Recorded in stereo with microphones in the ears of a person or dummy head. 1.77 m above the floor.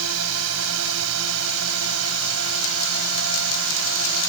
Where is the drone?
75° right (ahead or behind).